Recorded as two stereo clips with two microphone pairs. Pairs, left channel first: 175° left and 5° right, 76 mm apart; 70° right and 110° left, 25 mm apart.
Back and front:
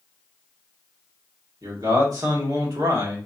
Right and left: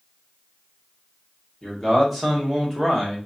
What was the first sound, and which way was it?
A man speaking, 20° left.